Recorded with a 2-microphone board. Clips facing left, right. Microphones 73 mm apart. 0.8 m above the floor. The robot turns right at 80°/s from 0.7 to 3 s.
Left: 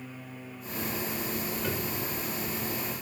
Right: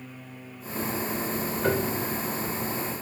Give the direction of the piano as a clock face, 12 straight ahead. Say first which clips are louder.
Right 7 dB; 4 o'clock.